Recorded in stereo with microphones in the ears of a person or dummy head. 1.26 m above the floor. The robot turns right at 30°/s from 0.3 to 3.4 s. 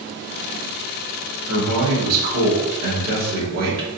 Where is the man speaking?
105° right, 1.7 m; by 3.9 s 45° right, 1.7 m.